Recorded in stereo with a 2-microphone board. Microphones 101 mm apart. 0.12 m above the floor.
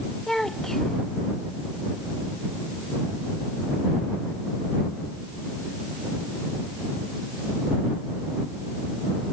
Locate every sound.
0.3 s a child speaking: 5° left (ahead or behind)